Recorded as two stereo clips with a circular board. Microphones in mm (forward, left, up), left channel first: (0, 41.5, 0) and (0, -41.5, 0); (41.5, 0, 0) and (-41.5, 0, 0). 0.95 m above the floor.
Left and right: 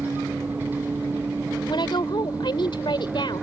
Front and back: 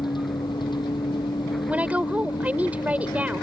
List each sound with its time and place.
0.0 s a vehicle: 20° right
1.7 s a woman speaking: 110° left